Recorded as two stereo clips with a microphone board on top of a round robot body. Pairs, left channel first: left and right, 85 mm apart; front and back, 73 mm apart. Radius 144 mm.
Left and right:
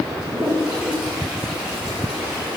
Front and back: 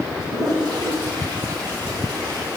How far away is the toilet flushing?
About 4.5 m.